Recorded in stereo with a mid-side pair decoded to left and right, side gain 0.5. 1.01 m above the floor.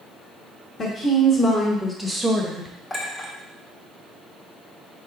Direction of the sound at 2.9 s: 30° left.